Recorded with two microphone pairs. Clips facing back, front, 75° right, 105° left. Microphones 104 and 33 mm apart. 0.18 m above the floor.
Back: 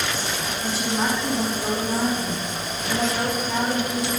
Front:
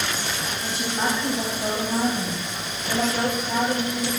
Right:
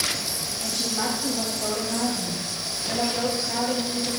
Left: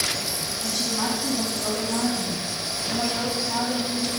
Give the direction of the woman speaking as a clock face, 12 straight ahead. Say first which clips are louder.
Back 2 dB, left 1 dB; 2 o'clock.